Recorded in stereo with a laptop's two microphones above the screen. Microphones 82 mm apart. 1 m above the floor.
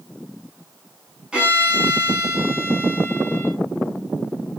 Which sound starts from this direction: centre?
A violin, at 1.3 s.